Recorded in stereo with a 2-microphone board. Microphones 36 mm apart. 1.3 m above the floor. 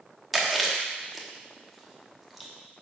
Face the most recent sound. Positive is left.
turn(degrees=-5)  # may be behind; listen again after turning